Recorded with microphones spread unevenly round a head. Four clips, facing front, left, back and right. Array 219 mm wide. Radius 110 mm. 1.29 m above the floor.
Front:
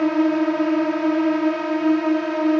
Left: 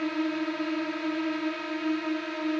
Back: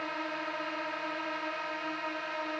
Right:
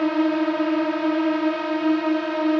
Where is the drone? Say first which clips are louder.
Right 9 dB, front 19 dB; 30° right.